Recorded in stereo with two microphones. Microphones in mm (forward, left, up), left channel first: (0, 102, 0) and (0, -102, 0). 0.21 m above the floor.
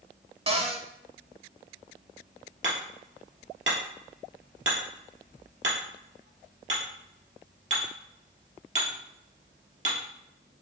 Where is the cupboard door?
30° right (ahead or behind), 0.6 m.